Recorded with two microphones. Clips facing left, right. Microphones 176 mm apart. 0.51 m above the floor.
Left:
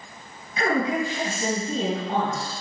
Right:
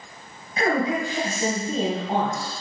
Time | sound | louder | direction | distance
0.6 | a woman speaking | right 1 dB | 40° right (ahead or behind) | 3.5 m